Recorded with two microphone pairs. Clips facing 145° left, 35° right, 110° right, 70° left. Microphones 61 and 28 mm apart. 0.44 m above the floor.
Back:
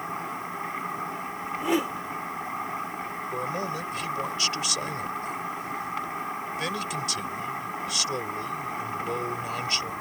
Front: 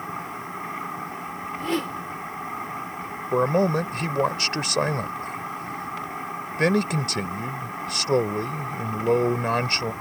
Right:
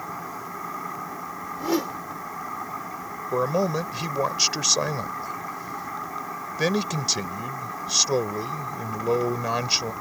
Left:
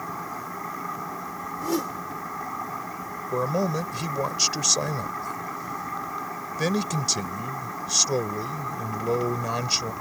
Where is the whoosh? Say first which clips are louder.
Back 1 dB, right 2 dB; 145° right.